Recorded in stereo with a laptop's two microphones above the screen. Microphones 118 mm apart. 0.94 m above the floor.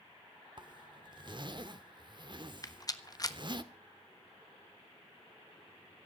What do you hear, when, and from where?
0.6 s a zipper: 40° right (ahead or behind), 1.4 m
2.6 s a rattle: 30° left (ahead or behind), 1.3 m